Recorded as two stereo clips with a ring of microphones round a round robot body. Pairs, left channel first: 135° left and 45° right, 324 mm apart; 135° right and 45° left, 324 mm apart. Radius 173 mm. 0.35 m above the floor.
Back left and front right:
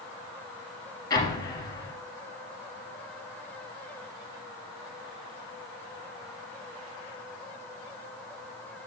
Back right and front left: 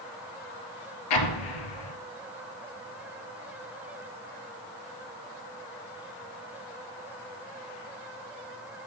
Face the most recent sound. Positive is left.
turn(degrees=-145)